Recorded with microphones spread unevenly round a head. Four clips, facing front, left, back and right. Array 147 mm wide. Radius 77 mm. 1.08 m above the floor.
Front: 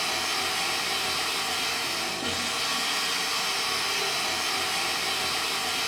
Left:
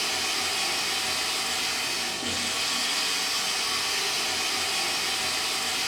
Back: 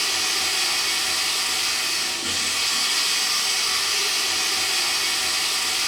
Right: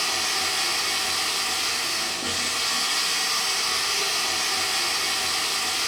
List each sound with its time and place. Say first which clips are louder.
0.0 s running water: right 3 dB, even; 20° left, 1.1 m